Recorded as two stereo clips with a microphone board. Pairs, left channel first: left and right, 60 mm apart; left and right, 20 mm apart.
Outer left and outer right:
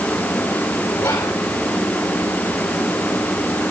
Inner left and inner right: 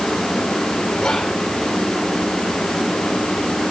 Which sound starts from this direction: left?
Whispering, at 1.0 s.